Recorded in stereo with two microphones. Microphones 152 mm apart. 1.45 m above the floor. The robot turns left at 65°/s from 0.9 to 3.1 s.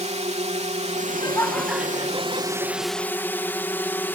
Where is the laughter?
40° left; by 3.0 s 85° right.